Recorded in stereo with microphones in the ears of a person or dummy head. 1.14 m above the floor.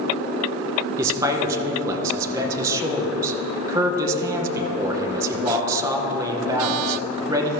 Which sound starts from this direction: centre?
A man speaking, at 1.0 s.